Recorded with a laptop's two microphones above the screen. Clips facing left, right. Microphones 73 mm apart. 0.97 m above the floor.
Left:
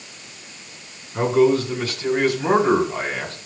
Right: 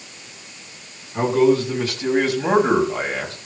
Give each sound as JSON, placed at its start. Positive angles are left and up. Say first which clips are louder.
{"t": 1.1, "sound": "a man speaking", "louder": "even", "side_deg": -25, "distance_m": 7.0}